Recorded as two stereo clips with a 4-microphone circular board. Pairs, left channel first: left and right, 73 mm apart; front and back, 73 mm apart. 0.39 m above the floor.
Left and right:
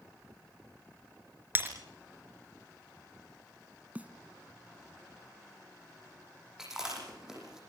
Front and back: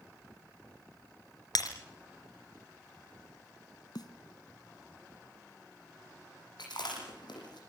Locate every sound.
1.6 s breaking glass: 30° right, 4 m
4.0 s a snare drum: 20° right, 1.7 m
6.6 s chewing: 10° right, 9.5 m